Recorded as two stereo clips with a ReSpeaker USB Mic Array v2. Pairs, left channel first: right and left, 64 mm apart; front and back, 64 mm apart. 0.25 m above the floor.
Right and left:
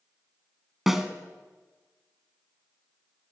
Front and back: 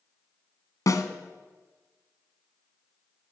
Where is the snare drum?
5° left, 1.3 m.